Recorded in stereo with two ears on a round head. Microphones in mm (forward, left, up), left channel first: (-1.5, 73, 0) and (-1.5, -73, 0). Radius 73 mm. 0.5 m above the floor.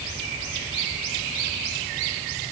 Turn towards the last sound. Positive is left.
No sound to turn to.